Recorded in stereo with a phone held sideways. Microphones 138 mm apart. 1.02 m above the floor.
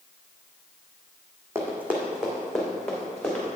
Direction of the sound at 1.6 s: 15° right (ahead or behind).